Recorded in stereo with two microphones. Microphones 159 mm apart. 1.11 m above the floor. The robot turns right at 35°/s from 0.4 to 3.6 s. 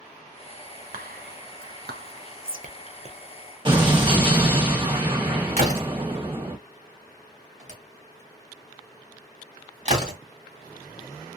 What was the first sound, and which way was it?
Whispering, 60° right (ahead or behind).